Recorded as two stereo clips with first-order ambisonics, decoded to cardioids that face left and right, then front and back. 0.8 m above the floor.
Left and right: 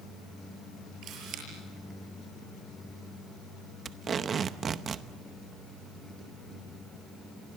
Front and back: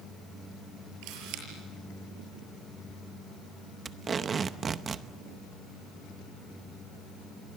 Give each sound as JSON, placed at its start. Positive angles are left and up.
{"t": 1.0, "sound": "a camera shutter", "azimuth_deg": -145, "distance_m": 7.0}
{"t": 3.9, "sound": "tape being pulled", "azimuth_deg": -130, "distance_m": 0.8}